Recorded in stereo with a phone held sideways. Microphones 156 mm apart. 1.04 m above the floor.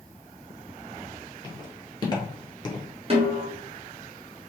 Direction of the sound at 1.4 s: 30° left (ahead or behind).